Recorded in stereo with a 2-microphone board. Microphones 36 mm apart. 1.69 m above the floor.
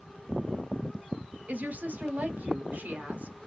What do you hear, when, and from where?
1.5 s a woman speaking: 45° right (ahead or behind), 1.0 m